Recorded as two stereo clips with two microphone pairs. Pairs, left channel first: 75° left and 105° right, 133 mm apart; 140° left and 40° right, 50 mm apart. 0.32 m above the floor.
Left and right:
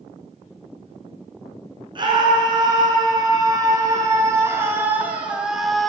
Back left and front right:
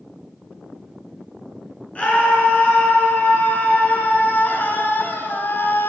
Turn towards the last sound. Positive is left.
turn(degrees=160)